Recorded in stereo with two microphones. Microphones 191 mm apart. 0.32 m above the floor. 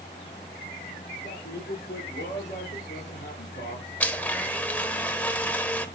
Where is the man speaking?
60° left (ahead or behind), 6.5 m.